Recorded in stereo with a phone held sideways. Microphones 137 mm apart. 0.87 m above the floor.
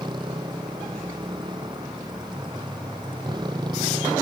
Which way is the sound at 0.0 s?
35° right (ahead or behind).